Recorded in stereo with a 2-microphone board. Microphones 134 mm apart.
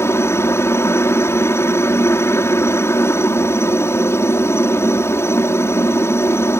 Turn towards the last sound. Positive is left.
turn(degrees=20)  # may be behind; listen again after turning